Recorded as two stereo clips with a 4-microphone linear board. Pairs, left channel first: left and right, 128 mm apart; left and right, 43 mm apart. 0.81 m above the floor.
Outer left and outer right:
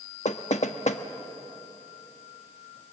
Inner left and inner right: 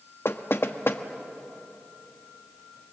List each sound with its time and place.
0.2 s knocking: 65° left (ahead or behind), 1.0 m